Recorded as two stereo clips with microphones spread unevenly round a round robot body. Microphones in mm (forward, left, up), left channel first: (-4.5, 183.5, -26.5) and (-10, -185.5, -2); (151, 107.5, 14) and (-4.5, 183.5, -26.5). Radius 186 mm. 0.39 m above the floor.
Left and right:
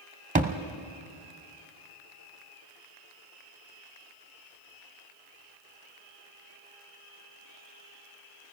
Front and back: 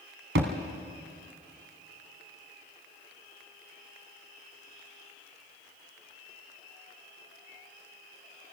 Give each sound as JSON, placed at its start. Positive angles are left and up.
{"t": 0.3, "sound": "a thud", "azimuth_deg": -160, "distance_m": 1.1}